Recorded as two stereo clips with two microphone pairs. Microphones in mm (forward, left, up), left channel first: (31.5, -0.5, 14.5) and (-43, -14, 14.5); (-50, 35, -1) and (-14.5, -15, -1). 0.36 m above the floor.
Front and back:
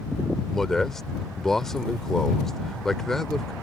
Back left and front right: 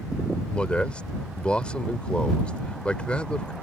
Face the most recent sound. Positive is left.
turn(degrees=90)